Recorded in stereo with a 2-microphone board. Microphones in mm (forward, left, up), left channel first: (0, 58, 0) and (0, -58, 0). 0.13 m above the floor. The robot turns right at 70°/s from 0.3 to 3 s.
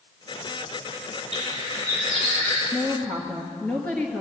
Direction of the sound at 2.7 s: Centre (ahead or behind).